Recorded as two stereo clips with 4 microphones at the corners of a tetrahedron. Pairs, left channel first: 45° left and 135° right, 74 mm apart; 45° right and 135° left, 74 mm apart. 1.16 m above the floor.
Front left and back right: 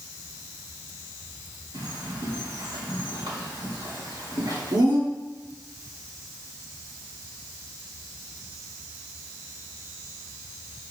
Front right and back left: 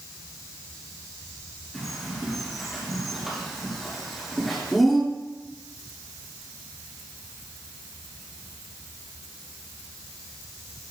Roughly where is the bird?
Behind right.